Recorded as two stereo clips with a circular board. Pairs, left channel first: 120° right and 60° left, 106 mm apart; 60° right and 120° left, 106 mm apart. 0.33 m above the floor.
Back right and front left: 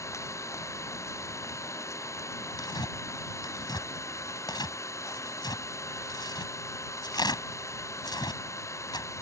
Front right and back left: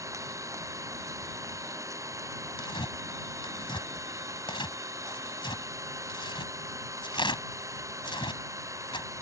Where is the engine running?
Straight behind.